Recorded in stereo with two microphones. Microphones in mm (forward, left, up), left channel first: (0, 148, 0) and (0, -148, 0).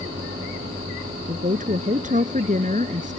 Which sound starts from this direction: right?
A woman speaking, at 1.3 s.